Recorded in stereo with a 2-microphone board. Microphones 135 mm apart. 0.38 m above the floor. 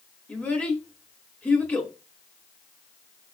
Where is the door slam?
I don't hear a door slam.